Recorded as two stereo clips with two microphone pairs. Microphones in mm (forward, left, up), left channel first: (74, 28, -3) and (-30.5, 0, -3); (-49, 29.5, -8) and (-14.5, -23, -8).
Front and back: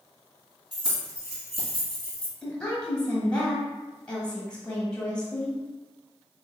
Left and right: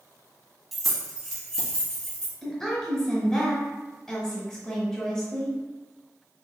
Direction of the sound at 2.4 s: 65° left.